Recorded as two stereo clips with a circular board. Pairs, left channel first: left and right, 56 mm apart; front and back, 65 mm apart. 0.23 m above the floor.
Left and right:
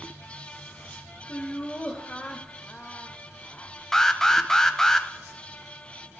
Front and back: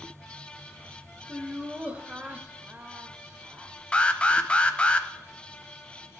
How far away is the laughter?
About 1.1 m.